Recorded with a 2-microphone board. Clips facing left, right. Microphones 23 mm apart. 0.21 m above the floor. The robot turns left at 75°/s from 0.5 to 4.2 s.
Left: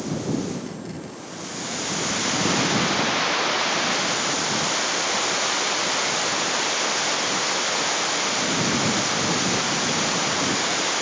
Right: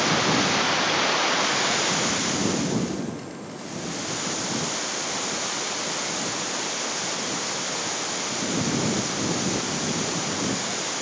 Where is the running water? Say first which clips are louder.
Right 6 dB; 65° right; by 11.0 s 20° left.